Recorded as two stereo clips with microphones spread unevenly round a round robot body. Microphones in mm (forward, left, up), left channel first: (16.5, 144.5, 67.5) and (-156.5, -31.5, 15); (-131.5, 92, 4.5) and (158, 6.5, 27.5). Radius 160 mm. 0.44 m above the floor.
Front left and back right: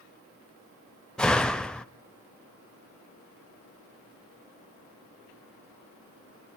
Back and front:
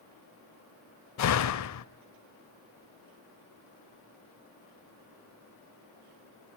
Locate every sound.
1.2 s a door slam: 135° left, 1.2 m